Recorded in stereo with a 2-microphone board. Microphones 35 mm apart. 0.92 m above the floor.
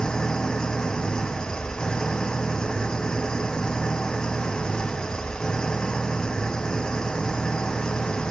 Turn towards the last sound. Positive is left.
turn(degrees=20)  # may be behind; listen again after turning